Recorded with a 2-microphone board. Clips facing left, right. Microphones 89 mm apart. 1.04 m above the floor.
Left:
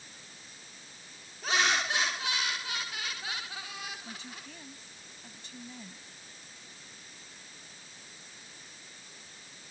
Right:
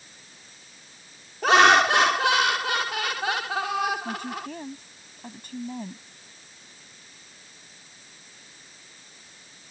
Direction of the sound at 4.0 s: 55° right (ahead or behind).